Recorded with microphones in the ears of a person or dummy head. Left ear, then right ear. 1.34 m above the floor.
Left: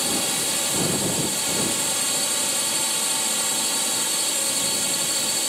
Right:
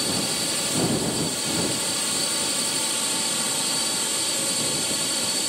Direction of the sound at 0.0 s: 25° left (ahead or behind).